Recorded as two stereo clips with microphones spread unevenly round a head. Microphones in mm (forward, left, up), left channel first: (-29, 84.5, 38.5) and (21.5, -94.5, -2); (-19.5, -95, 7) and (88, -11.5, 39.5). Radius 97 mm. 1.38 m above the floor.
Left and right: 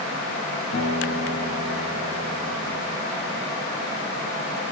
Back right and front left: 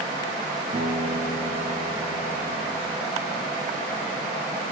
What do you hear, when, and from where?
0.7 s a guitar: 90° left, 3 m